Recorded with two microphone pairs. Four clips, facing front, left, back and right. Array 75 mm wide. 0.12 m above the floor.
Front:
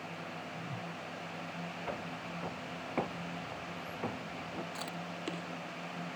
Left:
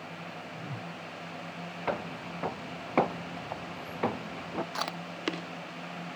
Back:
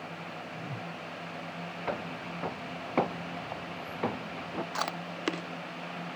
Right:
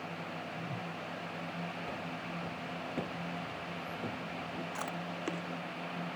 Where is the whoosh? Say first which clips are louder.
Even, back 3 dB; 150° left.